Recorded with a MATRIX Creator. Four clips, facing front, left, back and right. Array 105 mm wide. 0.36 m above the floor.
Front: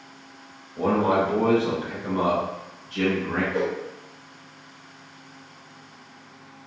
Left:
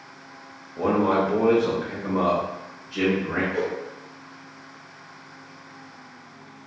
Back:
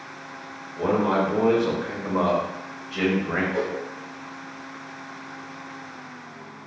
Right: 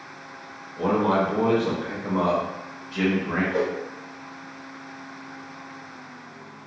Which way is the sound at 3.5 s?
105° right.